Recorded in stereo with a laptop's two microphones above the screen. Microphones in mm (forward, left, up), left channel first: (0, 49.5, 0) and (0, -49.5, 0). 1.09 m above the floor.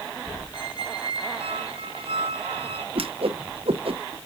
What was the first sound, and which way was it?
A squeak, 70° right (ahead or behind).